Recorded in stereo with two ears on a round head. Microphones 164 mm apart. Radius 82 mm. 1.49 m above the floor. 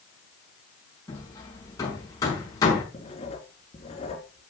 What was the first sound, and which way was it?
Hammering, 20° left (ahead or behind).